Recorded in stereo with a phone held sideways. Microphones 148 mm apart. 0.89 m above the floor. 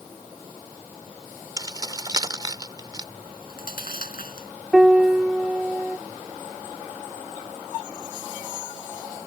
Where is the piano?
5° right (ahead or behind).